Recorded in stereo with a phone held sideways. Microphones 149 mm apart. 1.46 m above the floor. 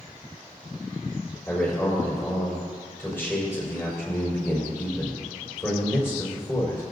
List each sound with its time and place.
1.5 s a man speaking: 15° left (ahead or behind), 4.5 m